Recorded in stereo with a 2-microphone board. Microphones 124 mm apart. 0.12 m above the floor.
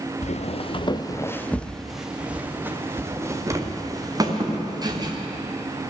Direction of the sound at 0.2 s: 65° left (ahead or behind).